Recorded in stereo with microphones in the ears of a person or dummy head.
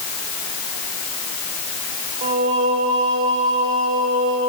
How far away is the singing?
About 1.7 m.